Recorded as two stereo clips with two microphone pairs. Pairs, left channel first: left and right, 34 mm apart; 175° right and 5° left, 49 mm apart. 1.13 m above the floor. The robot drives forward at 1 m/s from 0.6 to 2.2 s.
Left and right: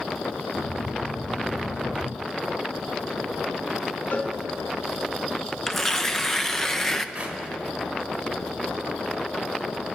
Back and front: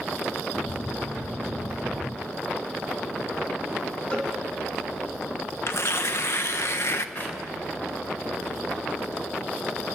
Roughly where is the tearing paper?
Behind.